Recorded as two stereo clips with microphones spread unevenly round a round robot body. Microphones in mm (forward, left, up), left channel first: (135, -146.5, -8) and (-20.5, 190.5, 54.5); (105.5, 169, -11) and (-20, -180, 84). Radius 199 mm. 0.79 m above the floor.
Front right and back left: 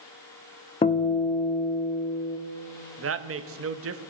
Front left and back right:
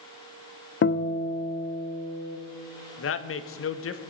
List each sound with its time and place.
0.8 s a guitar: 10° left, 0.9 m
3.0 s a woman speaking: 60° left, 0.9 m